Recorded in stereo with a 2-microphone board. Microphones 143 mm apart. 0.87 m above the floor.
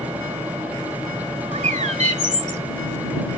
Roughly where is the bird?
Right.